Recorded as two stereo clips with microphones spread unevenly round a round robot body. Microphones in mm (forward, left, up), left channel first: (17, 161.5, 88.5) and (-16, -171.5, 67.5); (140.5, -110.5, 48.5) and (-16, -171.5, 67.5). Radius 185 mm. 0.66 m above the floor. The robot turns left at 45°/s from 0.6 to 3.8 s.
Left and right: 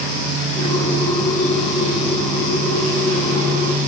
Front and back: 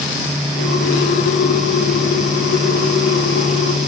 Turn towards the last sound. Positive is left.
No sound to turn to.